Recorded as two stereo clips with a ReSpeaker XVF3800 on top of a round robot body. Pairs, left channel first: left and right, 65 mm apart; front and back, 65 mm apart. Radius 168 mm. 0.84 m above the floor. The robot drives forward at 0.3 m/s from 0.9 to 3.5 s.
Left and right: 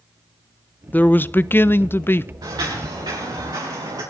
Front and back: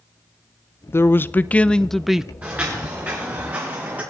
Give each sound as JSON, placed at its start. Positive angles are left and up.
{"t": 0.9, "sound": "a man speaking", "azimuth_deg": 30, "distance_m": 0.6}
{"t": 2.4, "sound": "footsteps", "azimuth_deg": -115, "distance_m": 6.5}